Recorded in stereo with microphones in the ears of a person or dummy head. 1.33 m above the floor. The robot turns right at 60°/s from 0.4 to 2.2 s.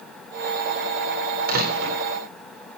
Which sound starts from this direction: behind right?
A door slam, at 1.5 s.